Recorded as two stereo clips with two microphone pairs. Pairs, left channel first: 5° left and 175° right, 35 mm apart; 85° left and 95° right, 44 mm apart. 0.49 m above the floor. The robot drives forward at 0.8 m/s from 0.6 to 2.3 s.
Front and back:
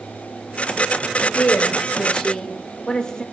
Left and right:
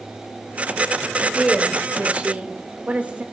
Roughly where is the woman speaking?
Ahead right.